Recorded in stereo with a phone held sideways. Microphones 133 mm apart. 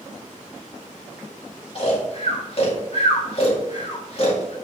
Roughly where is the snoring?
Left.